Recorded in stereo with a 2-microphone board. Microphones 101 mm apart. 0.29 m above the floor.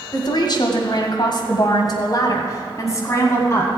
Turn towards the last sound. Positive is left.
turn(degrees=25)  # may be behind; listen again after turning